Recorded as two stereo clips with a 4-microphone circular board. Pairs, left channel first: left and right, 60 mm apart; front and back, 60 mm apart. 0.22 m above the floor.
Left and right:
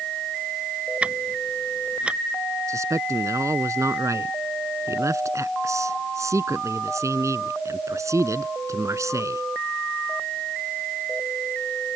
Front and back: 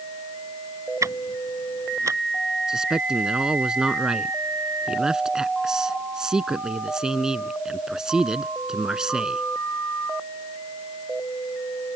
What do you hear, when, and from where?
1.0 s ticking: 160° right
2.7 s a man speaking: 105° right